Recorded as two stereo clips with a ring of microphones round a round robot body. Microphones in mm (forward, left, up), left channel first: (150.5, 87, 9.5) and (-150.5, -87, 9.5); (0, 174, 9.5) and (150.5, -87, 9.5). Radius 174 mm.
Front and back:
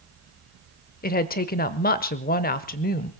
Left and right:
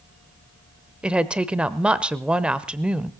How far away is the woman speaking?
About 0.8 m.